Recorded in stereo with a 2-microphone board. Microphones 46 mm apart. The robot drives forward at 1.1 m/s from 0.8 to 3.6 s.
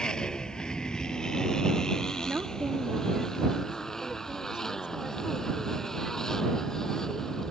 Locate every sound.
0.0 s a motorcycle: 15° left (ahead or behind); by 7.5 s 10° left (ahead or behind)
2.2 s a woman speaking: 45° right (ahead or behind); by 7.4 s 20° right (ahead or behind)